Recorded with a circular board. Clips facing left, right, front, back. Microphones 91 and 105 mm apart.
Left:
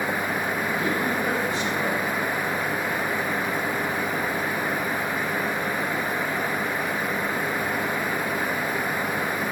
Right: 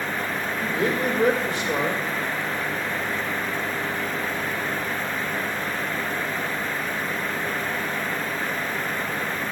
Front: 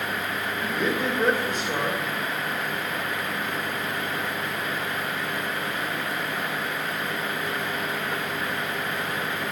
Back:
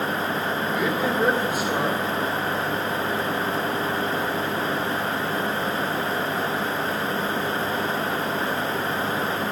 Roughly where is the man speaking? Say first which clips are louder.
Right 5 dB, even; right.